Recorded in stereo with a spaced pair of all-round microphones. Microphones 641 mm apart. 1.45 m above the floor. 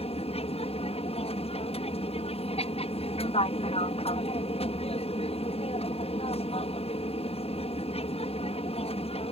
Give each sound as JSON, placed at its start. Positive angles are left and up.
{"t": 0.0, "sound": "an aircraft", "side_deg": 10}